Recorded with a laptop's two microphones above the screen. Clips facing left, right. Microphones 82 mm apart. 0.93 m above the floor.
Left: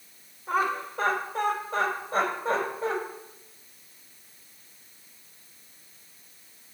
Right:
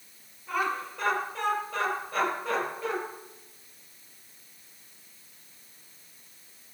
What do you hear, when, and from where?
0.5 s laughter: 35° left (ahead or behind), 4 m; by 3.0 s 25° left (ahead or behind), 5 m